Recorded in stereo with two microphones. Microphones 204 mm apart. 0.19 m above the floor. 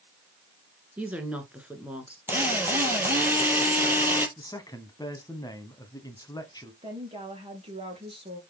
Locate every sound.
1.0 s a woman speaking: 5° right (ahead or behind), 2 m
2.3 s a drill: 10° right (ahead or behind), 2.5 m
4.4 s a man speaking: 20° left (ahead or behind), 1.5 m
6.8 s a woman speaking: 25° right (ahead or behind), 4 m